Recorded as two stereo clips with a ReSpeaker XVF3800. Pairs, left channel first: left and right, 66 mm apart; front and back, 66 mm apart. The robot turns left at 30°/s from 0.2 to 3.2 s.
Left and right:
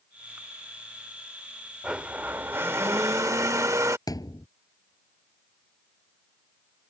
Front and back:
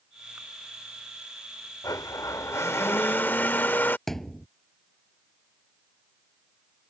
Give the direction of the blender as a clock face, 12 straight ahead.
1 o'clock.